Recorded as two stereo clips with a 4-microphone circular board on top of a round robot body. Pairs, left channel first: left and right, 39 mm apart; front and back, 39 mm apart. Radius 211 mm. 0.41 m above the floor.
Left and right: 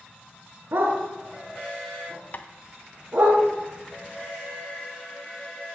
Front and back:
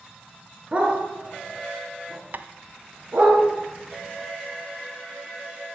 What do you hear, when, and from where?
0.7 s a dog barking: 120° right, 2.5 m; by 3.3 s 130° right, 6.5 m
2.3 s tapping: 140° left, 0.7 m